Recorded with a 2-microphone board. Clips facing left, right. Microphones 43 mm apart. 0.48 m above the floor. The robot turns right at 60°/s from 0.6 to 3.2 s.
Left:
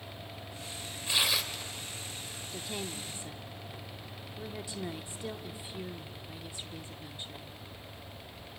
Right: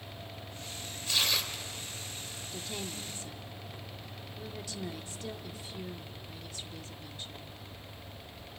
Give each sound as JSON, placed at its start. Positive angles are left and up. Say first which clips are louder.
{"t": 1.1, "sound": "tearing paper", "louder": "left 1 dB", "azimuth_deg": 155, "distance_m": 1.8}
{"t": 2.5, "sound": "a woman speaking", "louder": "left 1 dB", "side_deg": 10, "distance_m": 0.9}